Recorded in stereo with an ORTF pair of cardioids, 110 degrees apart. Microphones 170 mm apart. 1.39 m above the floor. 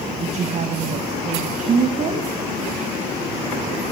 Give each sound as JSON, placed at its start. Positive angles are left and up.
{"t": 0.2, "sound": "a woman speaking", "azimuth_deg": -40, "distance_m": 1.7}